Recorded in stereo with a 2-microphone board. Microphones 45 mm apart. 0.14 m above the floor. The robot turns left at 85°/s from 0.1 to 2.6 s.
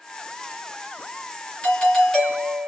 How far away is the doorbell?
About 3 m.